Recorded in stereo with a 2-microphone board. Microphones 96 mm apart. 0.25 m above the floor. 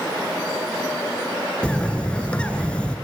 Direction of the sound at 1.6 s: 10° left (ahead or behind).